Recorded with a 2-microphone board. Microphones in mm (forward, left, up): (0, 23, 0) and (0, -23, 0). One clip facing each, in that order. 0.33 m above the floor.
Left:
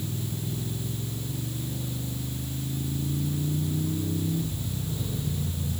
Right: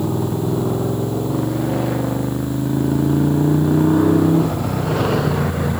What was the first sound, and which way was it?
A motorcycle, 75° right (ahead or behind).